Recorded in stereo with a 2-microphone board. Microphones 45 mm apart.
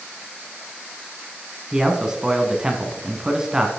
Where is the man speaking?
15° right (ahead or behind), 1.2 m.